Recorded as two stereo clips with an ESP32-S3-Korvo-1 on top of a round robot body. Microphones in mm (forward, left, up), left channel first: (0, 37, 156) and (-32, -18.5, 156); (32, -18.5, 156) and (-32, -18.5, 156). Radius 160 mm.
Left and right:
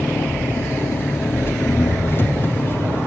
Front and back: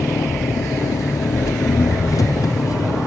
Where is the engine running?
10° left, 1.4 m.